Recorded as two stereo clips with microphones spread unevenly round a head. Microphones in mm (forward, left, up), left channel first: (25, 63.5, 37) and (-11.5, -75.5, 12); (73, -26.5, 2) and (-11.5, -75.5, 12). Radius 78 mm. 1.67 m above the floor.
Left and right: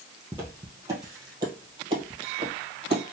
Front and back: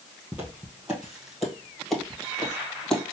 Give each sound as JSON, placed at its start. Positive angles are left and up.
{"t": 0.3, "sound": "footsteps", "azimuth_deg": 165, "distance_m": 1.8}